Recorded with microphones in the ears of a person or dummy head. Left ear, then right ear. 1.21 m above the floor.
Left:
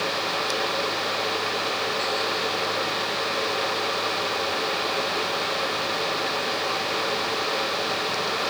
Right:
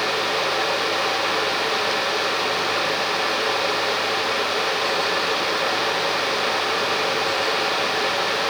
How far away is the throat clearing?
No throat clearing in this recording.